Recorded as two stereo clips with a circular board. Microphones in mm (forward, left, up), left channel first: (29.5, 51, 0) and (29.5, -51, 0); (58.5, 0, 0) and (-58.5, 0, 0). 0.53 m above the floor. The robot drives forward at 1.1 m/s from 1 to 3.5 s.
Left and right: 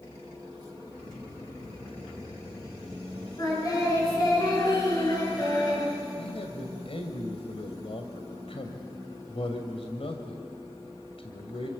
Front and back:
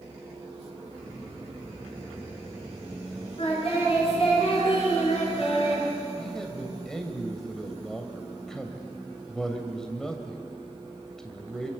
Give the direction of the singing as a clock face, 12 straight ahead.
11 o'clock.